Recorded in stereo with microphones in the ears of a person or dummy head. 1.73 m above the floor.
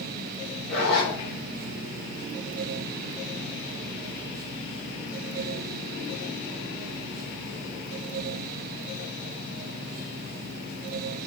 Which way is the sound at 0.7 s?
5° right (ahead or behind).